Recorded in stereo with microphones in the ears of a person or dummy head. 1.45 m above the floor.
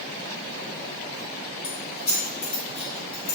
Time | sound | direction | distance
1.6 | keys jangling | 65° left (ahead or behind) | 1.4 m